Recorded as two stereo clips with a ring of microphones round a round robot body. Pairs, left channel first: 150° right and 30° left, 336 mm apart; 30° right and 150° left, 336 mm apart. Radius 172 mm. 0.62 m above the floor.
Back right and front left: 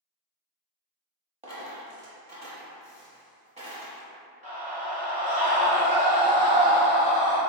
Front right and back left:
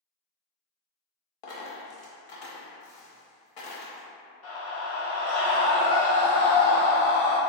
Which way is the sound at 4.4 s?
25° right.